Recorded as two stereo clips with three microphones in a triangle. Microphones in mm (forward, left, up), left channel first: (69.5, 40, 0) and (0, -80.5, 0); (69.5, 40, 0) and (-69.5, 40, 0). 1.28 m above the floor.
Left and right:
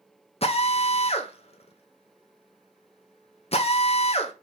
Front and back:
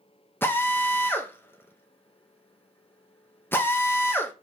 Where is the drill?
70° left, 0.6 m.